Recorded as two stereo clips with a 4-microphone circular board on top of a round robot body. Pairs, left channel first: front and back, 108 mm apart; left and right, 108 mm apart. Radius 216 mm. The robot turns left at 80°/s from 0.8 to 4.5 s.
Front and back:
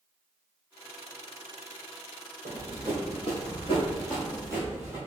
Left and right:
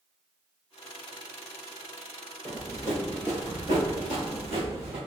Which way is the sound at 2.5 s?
Straight behind.